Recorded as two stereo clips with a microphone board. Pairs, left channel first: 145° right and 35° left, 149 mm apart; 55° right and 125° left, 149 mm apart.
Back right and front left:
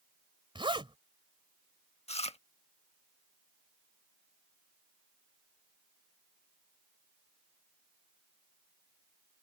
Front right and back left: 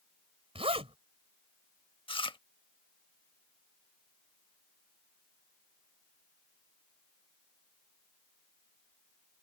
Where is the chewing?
105° right.